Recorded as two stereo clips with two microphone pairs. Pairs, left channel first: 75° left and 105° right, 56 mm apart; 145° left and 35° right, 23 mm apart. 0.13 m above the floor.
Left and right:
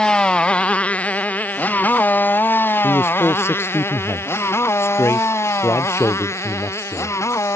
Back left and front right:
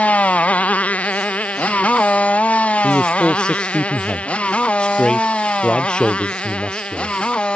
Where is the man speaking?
100° left.